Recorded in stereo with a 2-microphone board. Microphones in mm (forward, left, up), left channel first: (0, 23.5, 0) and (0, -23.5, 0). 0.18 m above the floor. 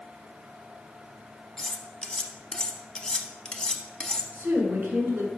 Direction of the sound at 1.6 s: 20° left (ahead or behind).